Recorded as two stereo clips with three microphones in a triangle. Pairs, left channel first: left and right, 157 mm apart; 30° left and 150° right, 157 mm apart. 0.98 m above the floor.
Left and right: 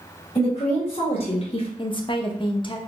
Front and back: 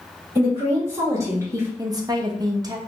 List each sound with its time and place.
0.3 s a woman speaking: 140° left, 1.9 m
1.8 s a woman speaking: 150° left, 0.7 m